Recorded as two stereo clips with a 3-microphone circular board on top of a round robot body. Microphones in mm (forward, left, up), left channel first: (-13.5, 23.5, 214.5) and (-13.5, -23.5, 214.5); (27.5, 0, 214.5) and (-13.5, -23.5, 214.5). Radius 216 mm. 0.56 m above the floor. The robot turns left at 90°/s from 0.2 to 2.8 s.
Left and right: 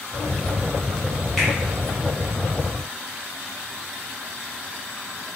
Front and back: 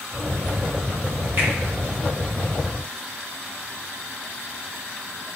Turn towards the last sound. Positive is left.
turn(degrees=45)